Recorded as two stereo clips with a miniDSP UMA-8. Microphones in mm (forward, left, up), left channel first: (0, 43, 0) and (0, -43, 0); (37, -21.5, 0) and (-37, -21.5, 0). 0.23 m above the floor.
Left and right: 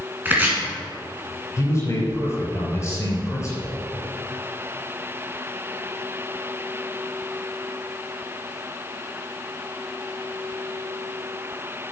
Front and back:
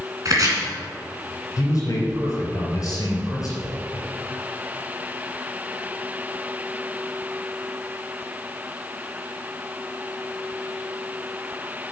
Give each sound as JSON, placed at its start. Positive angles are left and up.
{"t": 0.2, "sound": "chopping", "azimuth_deg": -155, "distance_m": 2.5}
{"t": 1.6, "sound": "a man speaking", "azimuth_deg": 35, "distance_m": 4.0}